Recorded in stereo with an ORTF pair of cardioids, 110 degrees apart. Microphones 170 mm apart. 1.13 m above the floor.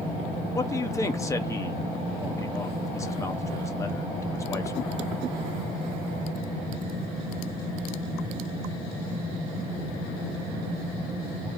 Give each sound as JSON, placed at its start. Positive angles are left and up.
{"t": 0.6, "sound": "a man speaking", "azimuth_deg": 20, "distance_m": 0.9}